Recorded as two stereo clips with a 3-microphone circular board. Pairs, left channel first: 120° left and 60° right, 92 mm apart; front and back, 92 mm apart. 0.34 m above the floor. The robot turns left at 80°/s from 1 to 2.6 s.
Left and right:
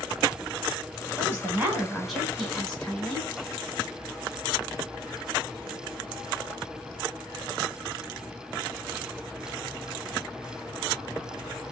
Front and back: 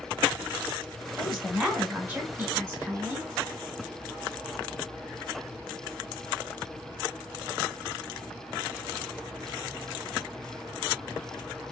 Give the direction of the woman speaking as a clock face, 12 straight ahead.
2 o'clock.